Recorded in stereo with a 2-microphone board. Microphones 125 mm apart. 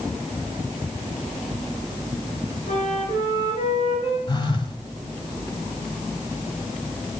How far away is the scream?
No scream in this recording.